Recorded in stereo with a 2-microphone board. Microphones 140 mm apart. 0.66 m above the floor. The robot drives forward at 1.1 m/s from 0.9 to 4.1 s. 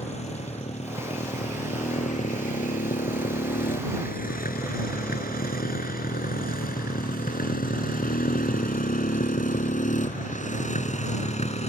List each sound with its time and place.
0.0 s a motorcycle: 45° left (ahead or behind); by 11.7 s 50° left (ahead or behind)